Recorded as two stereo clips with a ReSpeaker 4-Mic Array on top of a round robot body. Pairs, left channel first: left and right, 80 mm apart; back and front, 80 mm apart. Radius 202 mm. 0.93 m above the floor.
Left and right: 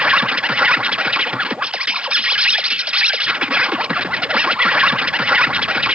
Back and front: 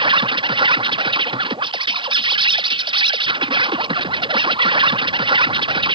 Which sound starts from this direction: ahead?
An insect, at 0.0 s.